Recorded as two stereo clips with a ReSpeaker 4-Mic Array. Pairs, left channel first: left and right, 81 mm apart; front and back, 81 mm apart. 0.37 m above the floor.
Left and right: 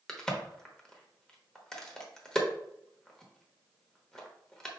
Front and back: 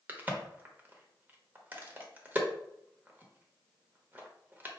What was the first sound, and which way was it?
A crack, 165° left.